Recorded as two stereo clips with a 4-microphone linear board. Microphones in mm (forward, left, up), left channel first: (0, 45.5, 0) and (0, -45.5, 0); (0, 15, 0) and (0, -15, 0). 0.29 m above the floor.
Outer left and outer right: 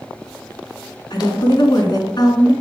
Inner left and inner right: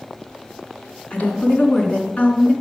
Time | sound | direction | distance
1.1 | a woman speaking | 55° left (ahead or behind) | 2.5 m